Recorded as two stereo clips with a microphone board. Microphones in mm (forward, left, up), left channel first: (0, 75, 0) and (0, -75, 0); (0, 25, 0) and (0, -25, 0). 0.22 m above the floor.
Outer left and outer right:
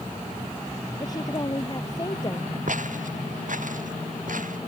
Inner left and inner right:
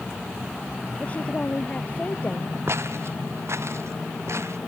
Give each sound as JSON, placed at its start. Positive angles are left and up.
{"t": 1.0, "sound": "a woman speaking", "side_deg": 30}
{"t": 2.7, "sound": "footsteps", "side_deg": -65}